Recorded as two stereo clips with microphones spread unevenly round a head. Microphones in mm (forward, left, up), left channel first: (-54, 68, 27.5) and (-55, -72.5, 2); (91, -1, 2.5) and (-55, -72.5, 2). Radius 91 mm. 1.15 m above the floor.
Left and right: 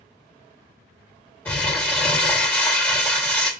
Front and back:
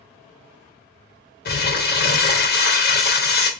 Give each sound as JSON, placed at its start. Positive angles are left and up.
{"t": 1.4, "sound": "crumpling", "azimuth_deg": 15, "distance_m": 0.8}